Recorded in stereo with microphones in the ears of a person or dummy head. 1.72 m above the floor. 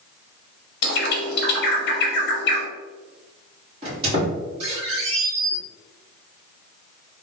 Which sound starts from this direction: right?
A squeak, at 3.8 s.